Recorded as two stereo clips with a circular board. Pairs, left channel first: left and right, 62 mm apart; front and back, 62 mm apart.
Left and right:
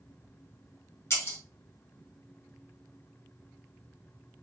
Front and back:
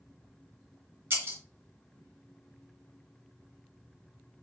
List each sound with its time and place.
1.1 s breaking glass: 135° left, 2.5 m